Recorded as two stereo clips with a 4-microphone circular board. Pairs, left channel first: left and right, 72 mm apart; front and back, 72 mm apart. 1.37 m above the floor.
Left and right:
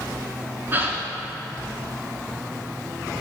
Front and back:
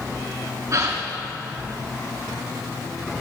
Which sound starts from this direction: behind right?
A gasp, at 0.7 s.